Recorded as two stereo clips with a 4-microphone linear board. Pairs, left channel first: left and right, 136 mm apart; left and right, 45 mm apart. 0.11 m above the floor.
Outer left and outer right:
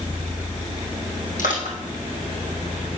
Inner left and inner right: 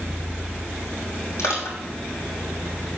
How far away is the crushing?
About 4 m.